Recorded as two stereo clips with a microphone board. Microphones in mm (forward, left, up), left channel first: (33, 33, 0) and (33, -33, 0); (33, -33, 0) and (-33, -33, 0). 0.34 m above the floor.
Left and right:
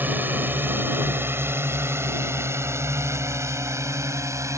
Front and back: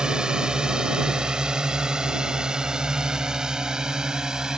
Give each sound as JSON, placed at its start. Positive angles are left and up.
{"t": 0.0, "sound": "a drone", "azimuth_deg": -115}